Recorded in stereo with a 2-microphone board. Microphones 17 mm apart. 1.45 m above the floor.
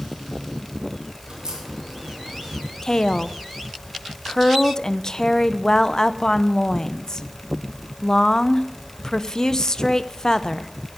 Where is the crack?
35° right (ahead or behind), 5 m.